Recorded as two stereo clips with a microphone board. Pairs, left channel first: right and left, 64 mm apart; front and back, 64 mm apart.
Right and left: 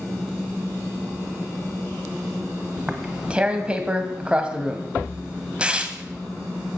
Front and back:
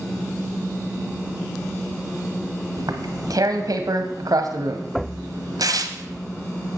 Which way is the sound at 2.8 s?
160° left.